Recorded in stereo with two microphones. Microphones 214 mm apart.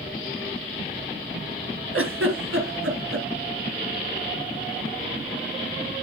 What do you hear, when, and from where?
1.9 s a giggle: 80° right, 2.5 m